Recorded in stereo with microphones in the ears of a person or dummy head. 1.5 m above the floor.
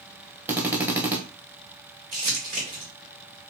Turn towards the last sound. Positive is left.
turn(degrees=-40)  # may be behind; listen again after turning